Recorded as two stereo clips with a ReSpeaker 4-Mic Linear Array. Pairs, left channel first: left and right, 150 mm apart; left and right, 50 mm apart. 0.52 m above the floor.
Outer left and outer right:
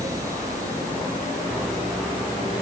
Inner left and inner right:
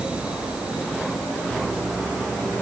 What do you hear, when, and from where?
Only background noise.